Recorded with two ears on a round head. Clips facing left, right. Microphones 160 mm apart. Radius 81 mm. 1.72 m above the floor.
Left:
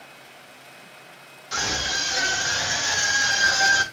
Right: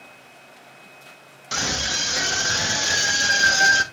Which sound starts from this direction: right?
A scream, at 1.5 s.